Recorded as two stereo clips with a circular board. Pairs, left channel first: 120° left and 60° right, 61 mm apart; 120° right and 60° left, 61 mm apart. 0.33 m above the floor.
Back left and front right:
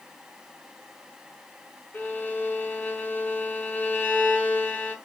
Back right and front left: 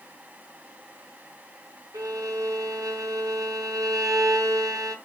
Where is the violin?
60° left, 5 m.